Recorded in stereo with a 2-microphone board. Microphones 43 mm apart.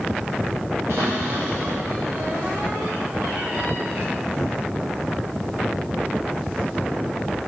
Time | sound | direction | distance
0.9 | a cupboard door | 75° right (ahead or behind) | 6.5 m